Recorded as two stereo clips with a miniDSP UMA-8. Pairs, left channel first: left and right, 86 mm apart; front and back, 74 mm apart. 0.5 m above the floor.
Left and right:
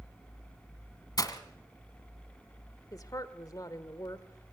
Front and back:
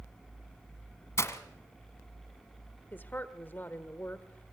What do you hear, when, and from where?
1.2 s breaking glass: 45° left, 1.5 m
2.9 s a woman speaking: 55° left, 1.4 m